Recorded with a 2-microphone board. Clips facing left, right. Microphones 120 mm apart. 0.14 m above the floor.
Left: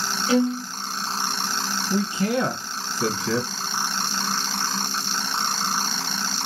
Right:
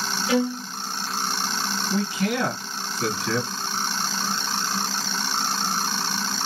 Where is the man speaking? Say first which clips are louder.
Left 2 dB; 30° left (ahead or behind), 2 m.